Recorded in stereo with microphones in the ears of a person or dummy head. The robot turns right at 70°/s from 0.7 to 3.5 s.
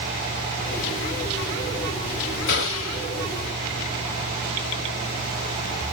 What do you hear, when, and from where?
2.5 s a gunshot: 60° left, 1.7 m; by 3.1 s 105° left, 1.7 m